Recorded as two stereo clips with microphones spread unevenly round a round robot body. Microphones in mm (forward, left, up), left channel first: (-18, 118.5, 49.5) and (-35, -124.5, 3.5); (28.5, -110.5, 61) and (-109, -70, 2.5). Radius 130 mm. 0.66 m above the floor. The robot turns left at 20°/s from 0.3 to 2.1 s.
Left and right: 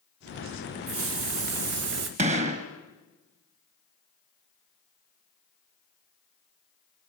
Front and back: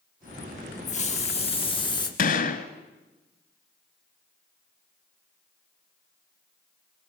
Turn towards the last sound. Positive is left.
turn(degrees=-25)